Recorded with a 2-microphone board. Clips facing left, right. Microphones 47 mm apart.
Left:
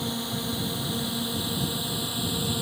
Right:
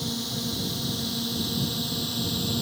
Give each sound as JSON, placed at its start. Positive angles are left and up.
{"t": 0.0, "sound": "a drone", "side_deg": 25}